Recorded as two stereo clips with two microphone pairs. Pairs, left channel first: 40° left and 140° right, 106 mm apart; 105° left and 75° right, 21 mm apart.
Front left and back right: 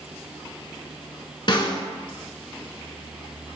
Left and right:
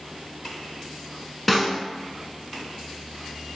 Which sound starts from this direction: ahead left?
A snare drum, at 1.5 s.